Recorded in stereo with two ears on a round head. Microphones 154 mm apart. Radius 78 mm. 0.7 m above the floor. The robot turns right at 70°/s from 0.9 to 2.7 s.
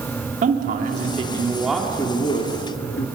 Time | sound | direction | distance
0.4 | a man speaking | 60° right | 1.8 m